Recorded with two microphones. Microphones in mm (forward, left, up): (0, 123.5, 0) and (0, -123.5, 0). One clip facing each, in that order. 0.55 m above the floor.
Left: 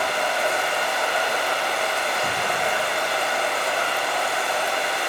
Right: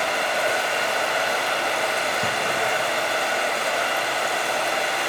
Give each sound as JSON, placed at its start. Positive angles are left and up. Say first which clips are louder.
{"t": 0.0, "sound": "running water", "louder": "even", "side_deg": -75, "distance_m": 3.5}